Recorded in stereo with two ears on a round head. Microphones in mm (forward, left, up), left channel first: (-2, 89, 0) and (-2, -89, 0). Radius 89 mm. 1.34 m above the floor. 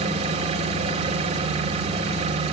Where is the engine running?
35° right (ahead or behind), 1.8 m.